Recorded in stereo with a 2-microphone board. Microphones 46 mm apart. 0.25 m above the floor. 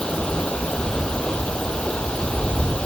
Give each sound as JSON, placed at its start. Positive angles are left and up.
{"t": 0.0, "sound": "running water", "side_deg": 20}